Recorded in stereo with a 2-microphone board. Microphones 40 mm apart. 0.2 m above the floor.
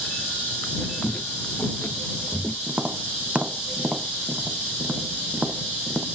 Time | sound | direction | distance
1.0 | footsteps | 30° left (ahead or behind) | ?
2.7 | tapping | 25° right (ahead or behind) | ?